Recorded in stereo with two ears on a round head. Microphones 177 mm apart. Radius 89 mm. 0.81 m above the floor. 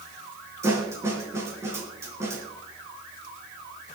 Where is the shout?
I don't hear a shout.